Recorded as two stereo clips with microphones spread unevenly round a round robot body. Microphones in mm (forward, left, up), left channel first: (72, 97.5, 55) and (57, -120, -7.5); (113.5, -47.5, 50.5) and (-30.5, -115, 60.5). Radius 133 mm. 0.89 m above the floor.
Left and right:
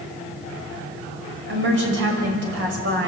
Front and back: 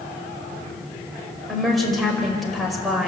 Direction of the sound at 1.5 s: 65° right.